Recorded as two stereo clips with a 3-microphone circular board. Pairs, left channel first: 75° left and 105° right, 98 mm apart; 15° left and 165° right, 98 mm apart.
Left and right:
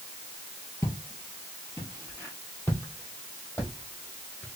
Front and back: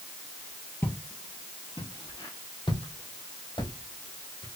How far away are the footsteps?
About 1.3 m.